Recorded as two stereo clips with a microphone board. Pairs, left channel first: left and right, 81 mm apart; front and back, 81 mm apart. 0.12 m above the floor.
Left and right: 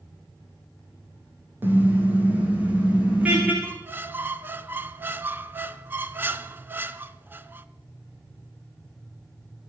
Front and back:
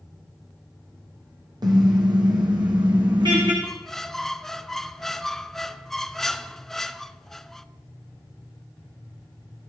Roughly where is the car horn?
Behind right.